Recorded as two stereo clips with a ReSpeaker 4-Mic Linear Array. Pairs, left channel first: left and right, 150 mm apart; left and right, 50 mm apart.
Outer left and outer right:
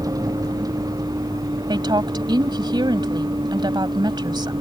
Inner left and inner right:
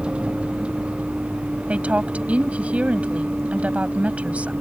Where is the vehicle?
25° right (ahead or behind); by 4.6 s 30° right (ahead or behind).